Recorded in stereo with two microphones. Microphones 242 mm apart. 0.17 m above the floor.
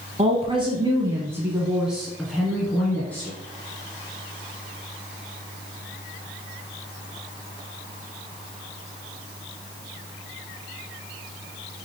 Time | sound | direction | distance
0.2 | a woman speaking | 25° right (ahead or behind) | 1.2 m